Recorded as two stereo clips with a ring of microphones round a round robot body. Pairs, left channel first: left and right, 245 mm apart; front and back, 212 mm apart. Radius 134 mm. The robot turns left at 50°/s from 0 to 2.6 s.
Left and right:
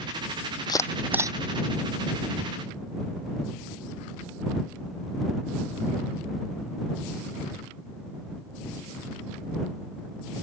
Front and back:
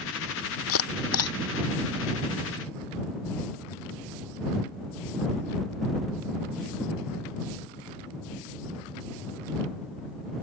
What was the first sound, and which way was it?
A camera shutter, 15° left.